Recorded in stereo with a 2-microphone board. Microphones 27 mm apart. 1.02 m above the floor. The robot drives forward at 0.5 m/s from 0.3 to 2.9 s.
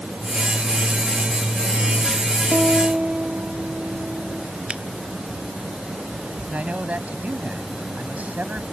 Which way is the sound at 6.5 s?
70° right (ahead or behind).